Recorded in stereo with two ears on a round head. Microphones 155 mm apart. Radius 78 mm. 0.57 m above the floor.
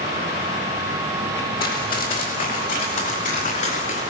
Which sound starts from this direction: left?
Running footsteps, at 1.6 s.